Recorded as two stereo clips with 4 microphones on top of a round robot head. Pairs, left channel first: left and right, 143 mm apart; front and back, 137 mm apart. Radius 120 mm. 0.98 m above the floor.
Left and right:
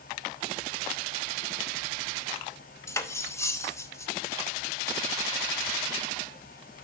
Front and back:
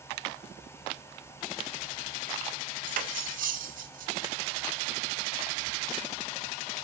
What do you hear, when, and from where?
2.9 s cutlery clinking: 160° left, 0.9 m